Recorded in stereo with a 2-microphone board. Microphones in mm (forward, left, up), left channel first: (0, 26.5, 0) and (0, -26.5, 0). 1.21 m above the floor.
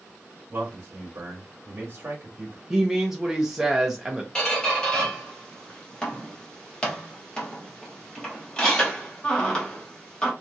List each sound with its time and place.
0.5 s a man speaking: 45° right (ahead or behind), 1.1 m
2.7 s a woman speaking: 5° right (ahead or behind), 0.6 m
4.3 s a squeak: 20° left (ahead or behind), 1.0 m